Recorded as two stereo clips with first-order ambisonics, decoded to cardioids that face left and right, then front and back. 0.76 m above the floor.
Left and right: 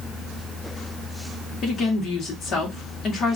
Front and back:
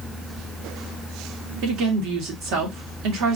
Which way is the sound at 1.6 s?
150° left.